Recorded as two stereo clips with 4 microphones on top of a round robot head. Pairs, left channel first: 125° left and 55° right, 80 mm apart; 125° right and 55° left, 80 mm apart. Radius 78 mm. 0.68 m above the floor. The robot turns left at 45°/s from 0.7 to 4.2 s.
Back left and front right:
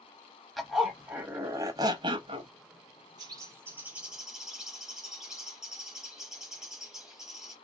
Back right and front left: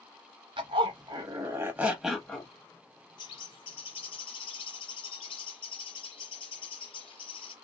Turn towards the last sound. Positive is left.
turn(degrees=-140)